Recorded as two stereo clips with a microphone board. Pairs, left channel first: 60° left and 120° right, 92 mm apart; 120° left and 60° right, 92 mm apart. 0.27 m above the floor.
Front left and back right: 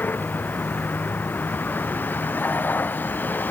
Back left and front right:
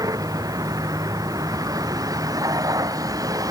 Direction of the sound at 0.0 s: 10° right.